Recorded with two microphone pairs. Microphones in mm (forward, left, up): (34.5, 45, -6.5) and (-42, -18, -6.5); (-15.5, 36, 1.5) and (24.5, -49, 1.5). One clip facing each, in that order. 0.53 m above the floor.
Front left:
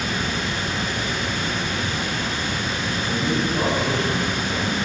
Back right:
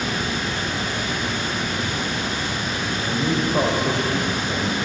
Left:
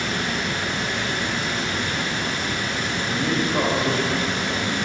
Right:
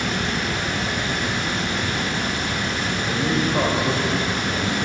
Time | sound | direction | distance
0.0 | running water | 90° right | 3.5 m
3.0 | a man speaking | 145° right | 2 m